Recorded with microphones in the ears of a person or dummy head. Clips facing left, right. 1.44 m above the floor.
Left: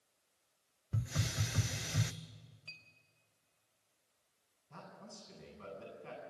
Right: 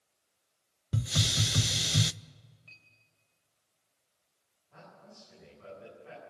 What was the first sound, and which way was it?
A hiss, 50° right (ahead or behind).